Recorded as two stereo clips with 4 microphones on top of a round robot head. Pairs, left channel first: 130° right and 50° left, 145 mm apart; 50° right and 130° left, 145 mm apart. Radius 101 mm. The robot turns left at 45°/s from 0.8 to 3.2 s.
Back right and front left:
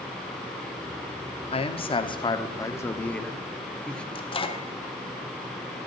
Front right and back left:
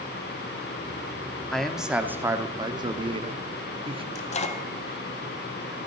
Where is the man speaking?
135° right, 1.2 m; by 4.0 s 150° left, 1.2 m.